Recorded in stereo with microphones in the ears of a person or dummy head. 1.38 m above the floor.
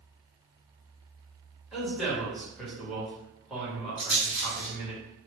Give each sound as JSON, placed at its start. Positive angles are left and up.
{"t": 1.7, "sound": "a man speaking", "side_deg": 0, "distance_m": 1.5}
{"t": 4.0, "sound": "a rattle", "side_deg": -10, "distance_m": 1.6}